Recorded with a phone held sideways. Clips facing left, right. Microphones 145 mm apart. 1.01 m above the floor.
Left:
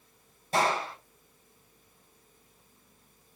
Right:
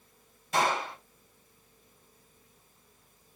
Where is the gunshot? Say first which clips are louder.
Left 1 dB; 30° left (ahead or behind), 4.5 m.